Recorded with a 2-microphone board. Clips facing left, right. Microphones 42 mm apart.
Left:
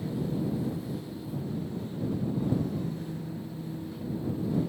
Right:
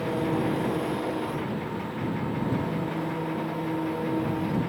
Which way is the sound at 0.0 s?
65° right (ahead or behind).